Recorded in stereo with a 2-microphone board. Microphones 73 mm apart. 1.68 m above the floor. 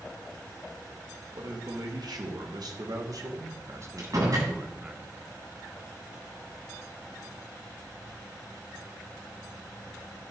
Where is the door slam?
55° right (ahead or behind), 9 m.